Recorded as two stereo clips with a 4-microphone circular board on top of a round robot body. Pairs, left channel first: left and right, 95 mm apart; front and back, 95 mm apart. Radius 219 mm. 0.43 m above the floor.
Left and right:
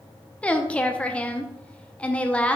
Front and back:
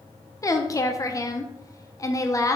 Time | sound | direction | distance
0.4 | a woman speaking | 20° left | 1.2 m